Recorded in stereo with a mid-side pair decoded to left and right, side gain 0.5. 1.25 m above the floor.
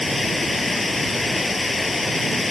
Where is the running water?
15° left.